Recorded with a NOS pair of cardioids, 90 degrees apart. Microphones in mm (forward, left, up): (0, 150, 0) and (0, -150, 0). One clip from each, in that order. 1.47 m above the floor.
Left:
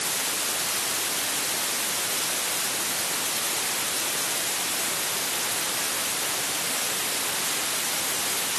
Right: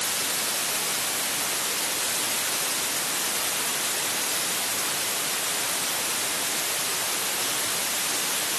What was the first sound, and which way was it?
Only background noise.